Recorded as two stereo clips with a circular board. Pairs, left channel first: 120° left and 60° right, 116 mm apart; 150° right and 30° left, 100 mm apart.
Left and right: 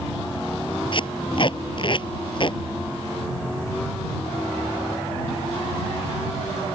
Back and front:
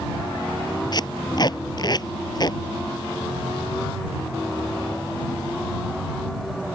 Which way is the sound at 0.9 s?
165° left.